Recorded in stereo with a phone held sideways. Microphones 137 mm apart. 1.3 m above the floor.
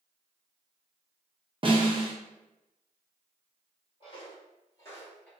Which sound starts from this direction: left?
Footsteps, at 4.0 s.